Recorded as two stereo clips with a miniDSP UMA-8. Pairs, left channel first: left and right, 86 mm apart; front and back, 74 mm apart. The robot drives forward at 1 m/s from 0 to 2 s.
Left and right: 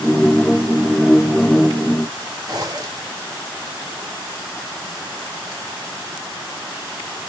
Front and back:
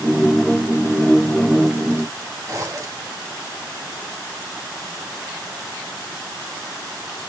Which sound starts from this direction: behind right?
A zipper, at 2.5 s.